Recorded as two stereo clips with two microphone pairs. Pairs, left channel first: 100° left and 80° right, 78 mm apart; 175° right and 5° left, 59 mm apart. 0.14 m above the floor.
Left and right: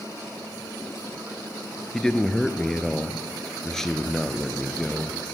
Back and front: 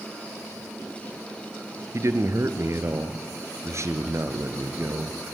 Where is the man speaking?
15° left, 2 m.